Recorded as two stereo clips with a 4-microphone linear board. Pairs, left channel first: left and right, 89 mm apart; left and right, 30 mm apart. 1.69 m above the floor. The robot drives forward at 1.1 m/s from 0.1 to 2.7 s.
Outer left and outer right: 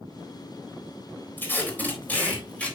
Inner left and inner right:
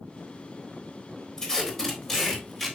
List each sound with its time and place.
1.4 s tape being pulled: 25° left (ahead or behind), 2 m; by 2.8 s 15° left (ahead or behind), 3.5 m